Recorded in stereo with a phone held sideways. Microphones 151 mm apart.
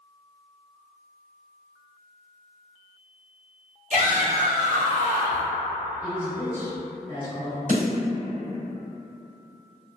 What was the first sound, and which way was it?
A shout, 55° right (ahead or behind).